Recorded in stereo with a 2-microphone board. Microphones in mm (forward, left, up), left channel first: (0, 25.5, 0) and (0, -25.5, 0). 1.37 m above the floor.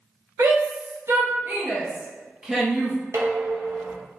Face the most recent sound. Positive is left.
turn(degrees=-65)  # may be behind; listen again after turning